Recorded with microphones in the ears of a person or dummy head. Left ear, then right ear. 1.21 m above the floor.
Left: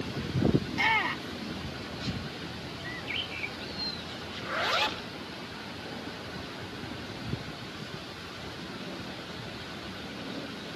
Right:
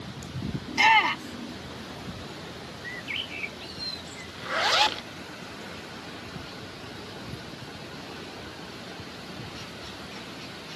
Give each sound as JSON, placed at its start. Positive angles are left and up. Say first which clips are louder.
{"t": 0.7, "sound": "a shout", "louder": "right 10 dB", "side_deg": -40}
{"t": 2.8, "sound": "a bird", "louder": "right 2 dB", "side_deg": -20}
{"t": 4.3, "sound": "a zipper", "louder": "right 5 dB", "side_deg": -30}